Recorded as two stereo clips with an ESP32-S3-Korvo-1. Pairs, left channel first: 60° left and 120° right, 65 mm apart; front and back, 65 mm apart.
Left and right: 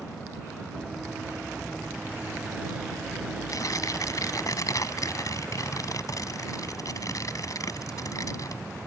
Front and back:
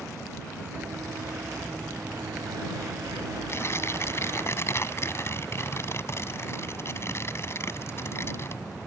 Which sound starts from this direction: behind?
Running footsteps, at 0.8 s.